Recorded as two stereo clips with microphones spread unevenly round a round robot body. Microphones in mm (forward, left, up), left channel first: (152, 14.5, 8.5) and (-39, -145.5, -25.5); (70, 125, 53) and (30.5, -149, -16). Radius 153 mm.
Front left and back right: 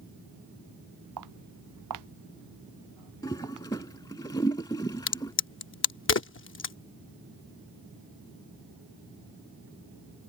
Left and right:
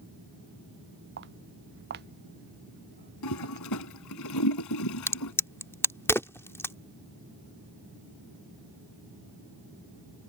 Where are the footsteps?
155° right; by 3.7 s 165° right.